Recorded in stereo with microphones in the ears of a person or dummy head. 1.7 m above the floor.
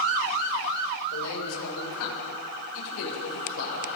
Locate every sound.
1.1 s a man speaking: 85° left, 6 m; by 3.9 s 65° left (ahead or behind), 7 m